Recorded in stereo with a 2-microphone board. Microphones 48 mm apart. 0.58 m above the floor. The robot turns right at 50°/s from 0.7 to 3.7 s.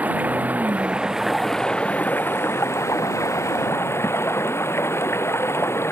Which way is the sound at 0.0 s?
35° right.